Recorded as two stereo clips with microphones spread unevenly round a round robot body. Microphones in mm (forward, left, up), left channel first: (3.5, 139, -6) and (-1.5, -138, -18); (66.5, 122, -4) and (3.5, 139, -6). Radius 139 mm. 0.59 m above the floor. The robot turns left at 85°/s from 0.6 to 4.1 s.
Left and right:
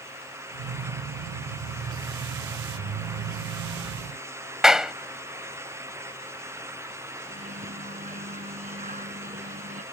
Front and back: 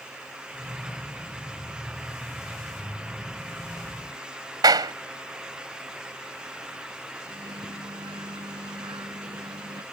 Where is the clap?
Straight behind.